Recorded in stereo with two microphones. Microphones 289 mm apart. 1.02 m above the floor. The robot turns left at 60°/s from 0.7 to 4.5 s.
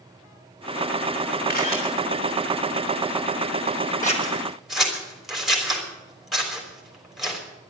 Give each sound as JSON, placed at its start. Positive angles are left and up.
{"t": 1.5, "sound": "a camera shutter", "side_deg": 35, "distance_m": 4.0}
{"t": 4.0, "sound": "scissors", "side_deg": 30, "distance_m": 3.5}